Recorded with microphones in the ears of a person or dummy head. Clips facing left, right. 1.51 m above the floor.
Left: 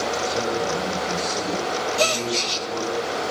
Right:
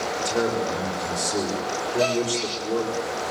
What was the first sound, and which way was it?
A man speaking, 40° right (ahead or behind).